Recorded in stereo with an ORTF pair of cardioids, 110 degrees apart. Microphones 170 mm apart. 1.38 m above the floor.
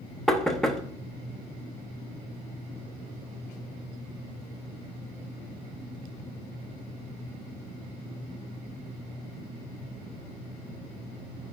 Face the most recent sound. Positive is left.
turn(degrees=0)